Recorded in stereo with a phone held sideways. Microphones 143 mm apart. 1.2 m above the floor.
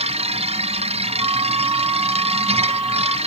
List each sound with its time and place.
0.0 s a machine running: 45° right (ahead or behind), 1.0 m
1.2 s a flute: 25° right (ahead or behind), 2.5 m